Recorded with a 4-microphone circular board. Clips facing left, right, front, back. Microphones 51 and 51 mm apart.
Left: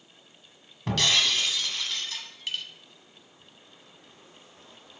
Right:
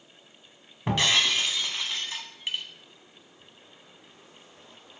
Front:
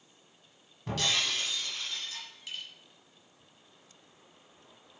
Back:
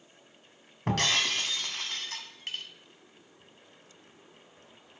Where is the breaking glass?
160° right, 1.1 m.